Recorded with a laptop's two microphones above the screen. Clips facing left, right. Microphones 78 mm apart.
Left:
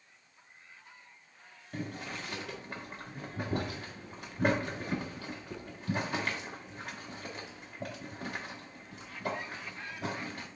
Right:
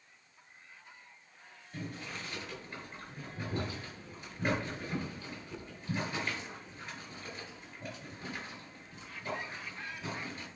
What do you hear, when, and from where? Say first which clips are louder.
1.7 s boiling: left 3 dB; 65° left (ahead or behind), 1.5 m